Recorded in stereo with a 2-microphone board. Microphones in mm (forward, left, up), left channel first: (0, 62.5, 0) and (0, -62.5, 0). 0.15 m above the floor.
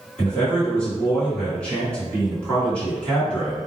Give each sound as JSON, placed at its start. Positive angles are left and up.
{"t": 0.2, "sound": "a man speaking", "side_deg": 10, "distance_m": 1.6}